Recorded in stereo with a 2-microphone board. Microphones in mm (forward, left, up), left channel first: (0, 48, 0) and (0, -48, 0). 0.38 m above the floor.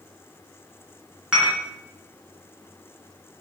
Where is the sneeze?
No sneeze in this recording.